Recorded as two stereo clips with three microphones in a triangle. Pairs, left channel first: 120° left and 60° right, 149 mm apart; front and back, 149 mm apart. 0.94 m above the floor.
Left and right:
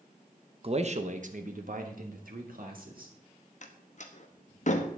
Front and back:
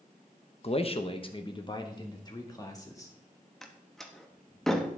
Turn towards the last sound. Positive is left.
turn(degrees=85)